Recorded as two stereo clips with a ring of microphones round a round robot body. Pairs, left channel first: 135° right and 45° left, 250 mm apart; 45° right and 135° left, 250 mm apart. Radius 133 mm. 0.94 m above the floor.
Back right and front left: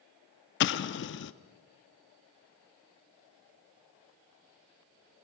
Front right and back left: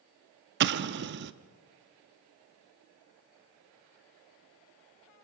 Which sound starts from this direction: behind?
An explosion, at 0.6 s.